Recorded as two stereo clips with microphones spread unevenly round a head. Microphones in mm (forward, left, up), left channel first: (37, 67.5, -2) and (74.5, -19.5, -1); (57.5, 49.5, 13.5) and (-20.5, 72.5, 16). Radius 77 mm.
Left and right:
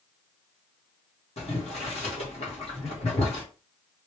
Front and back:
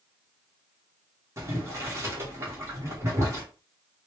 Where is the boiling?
105° left, 1.8 m.